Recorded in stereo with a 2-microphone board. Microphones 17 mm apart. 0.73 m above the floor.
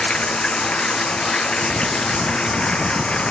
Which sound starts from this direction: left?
Running water, at 0.0 s.